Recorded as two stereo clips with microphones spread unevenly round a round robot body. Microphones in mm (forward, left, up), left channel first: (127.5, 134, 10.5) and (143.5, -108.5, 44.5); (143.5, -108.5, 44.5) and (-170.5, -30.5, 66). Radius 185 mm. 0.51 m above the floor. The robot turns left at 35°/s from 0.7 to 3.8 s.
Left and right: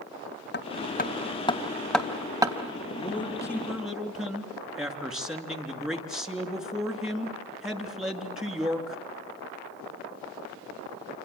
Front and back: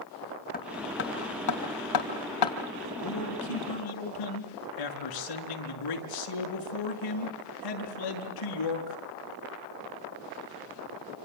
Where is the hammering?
50° left, 3.5 m; by 2.5 s 15° right, 3.5 m.